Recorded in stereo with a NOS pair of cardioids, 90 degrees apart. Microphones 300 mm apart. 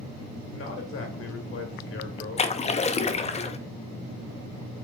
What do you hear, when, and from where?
0.5 s a man speaking: 45° left, 1.1 m
2.4 s a splash: 25° left, 0.5 m